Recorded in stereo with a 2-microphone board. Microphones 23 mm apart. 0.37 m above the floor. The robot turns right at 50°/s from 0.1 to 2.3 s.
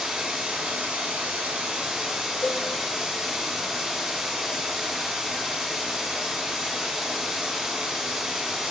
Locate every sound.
0.0 s running water: 135° right, 0.9 m; by 8.7 s 25° right, 0.9 m
2.4 s a cowbell: 75° left (ahead or behind), 0.5 m